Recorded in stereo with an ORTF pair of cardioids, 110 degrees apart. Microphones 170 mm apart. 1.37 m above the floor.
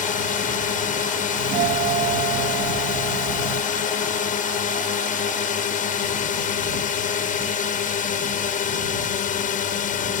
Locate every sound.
0.0 s a drone: 55° left
1.4 s a doorbell: 70° right